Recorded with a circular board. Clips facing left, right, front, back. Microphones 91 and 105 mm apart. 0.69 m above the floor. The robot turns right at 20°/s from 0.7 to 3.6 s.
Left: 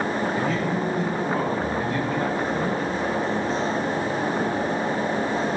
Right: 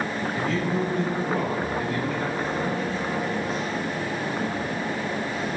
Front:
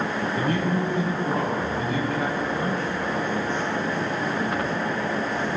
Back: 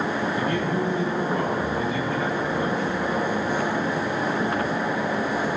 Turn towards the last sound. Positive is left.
turn(degrees=65)